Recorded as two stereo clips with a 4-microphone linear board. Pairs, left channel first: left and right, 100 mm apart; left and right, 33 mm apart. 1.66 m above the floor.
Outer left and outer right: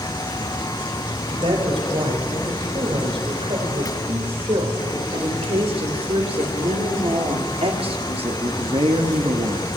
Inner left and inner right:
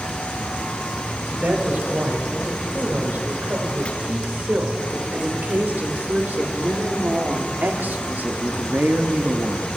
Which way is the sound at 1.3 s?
80° right.